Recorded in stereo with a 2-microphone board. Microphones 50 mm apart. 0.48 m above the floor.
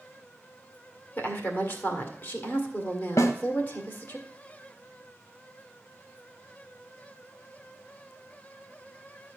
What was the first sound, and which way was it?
A woman speaking, 40° left (ahead or behind).